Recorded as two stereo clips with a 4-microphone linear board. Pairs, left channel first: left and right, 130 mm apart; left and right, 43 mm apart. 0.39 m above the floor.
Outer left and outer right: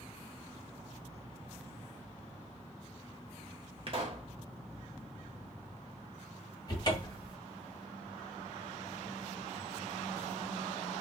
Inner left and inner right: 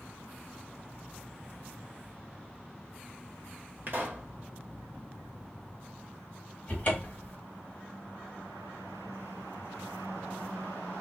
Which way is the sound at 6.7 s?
30° left (ahead or behind).